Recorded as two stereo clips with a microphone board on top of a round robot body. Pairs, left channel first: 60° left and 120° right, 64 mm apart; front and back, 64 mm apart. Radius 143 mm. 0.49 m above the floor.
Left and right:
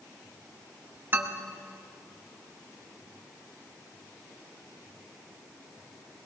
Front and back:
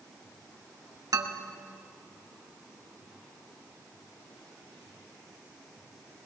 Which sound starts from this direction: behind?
A man speaking, at 1.1 s.